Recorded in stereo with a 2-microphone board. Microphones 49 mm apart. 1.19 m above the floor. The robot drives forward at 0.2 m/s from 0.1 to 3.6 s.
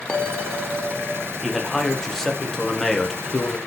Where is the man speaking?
5° left (ahead or behind), 0.8 m.